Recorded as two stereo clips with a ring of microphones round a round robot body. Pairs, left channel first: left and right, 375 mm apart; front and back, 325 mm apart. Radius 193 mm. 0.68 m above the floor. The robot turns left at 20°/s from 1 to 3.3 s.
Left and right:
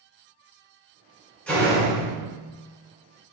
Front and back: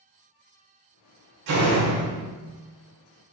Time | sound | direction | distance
1.5 | a door slam | 175° left | 2 m